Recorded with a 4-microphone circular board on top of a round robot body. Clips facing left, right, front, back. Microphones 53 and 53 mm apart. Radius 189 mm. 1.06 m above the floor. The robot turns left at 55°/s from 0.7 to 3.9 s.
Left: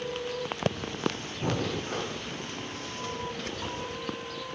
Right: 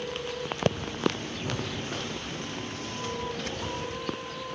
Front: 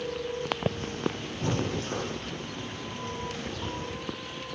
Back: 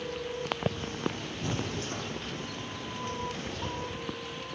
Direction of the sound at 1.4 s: 65° left.